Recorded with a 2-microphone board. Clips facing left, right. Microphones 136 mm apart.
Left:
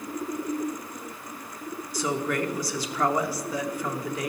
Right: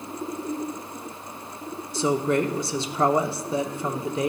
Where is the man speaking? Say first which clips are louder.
Right 5 dB; 25° right (ahead or behind), 0.8 m.